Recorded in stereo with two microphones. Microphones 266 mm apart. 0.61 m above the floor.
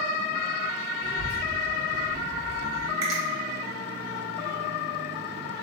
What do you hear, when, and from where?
1.0 s a child speaking: 55° right (ahead or behind), 1.3 m; by 2.9 s 80° right, 2.5 m
3.0 s a finger snap: 75° right (ahead or behind), 1.3 m